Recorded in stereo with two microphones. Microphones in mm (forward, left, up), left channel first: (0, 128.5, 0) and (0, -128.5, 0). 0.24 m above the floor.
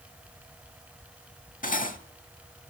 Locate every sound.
1.6 s cutlery clinking: 30° left (ahead or behind), 0.7 m